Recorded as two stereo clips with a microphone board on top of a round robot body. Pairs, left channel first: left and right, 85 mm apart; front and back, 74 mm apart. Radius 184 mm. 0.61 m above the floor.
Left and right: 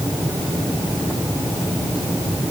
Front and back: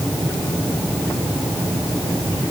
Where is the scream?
I don't hear a scream.